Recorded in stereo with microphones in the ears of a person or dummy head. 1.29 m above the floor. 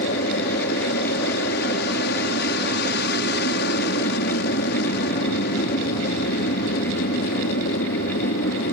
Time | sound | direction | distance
0.0 | an aircraft | 50° left (ahead or behind) | ?